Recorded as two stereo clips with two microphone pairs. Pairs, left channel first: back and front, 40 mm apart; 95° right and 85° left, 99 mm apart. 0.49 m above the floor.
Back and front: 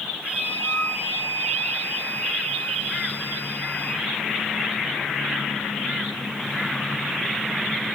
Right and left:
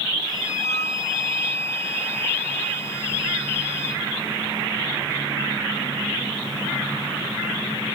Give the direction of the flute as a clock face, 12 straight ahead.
5 o'clock.